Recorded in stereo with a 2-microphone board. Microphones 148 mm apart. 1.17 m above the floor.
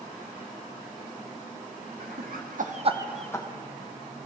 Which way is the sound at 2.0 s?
75° right (ahead or behind).